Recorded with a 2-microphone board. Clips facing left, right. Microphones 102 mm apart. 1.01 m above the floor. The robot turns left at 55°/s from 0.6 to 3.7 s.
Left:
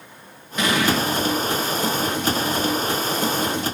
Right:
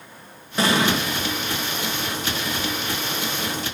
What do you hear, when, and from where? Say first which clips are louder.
0.6 s an explosion: even; 35° right (ahead or behind), 1.5 m; by 1.0 s 15° right (ahead or behind), 1.5 m